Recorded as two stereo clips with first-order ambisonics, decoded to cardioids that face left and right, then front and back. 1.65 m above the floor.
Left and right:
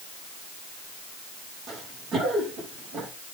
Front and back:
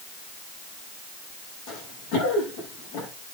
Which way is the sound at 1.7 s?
25° right.